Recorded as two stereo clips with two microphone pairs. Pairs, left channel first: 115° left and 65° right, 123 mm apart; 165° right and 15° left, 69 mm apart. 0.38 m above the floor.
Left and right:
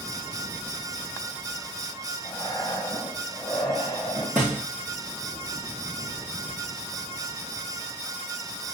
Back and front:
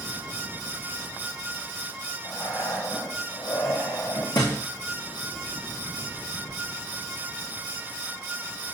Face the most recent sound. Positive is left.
turn(degrees=-150)